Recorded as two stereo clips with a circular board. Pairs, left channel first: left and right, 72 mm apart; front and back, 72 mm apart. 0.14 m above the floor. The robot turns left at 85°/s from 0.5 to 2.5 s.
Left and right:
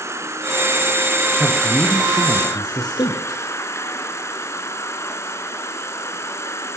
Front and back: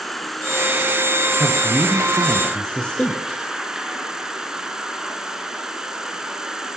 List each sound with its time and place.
0.0 s an insect: 90° right, 2.5 m; by 6.8 s 100° left, 2.5 m
1.3 s a man speaking: straight behind, 3.5 m; by 3.4 s 80° left, 3.5 m